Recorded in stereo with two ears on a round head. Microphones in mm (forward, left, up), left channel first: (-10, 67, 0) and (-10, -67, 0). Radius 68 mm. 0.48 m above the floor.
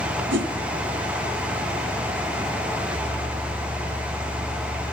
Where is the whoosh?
85° right, 1.4 m.